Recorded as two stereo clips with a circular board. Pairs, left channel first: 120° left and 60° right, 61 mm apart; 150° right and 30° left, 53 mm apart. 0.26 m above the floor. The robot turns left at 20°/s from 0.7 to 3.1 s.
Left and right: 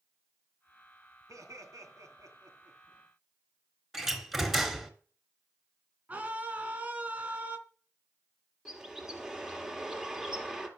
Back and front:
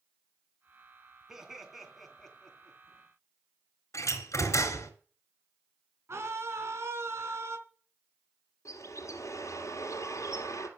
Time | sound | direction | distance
1.3 | laughter | 50° right | 3 m
3.9 | a door slam | 145° right | 2.5 m
6.1 | a scream | 5° left | 2.5 m
8.7 | a bird | 140° right | 2.5 m